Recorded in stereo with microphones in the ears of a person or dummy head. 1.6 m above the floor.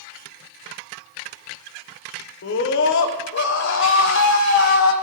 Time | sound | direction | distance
2.4 | a scream | 65° left (ahead or behind) | 1.2 m